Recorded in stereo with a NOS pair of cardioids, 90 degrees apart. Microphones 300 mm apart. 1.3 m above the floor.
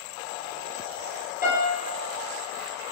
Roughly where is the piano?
Ahead left.